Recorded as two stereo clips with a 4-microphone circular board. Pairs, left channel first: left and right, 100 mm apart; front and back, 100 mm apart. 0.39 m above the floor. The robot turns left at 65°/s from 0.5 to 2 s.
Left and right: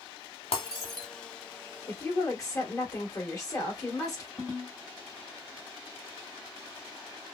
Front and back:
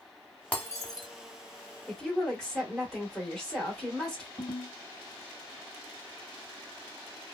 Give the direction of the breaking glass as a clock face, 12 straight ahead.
10 o'clock.